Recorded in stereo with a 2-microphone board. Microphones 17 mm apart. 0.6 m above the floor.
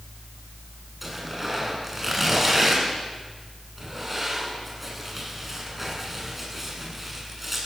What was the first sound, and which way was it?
Tearing paper, 10° right (ahead or behind).